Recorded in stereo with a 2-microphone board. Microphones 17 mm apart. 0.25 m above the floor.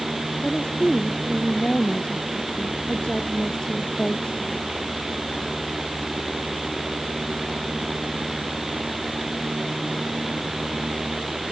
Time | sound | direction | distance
0.4 | a woman speaking | 65° left (ahead or behind) | ?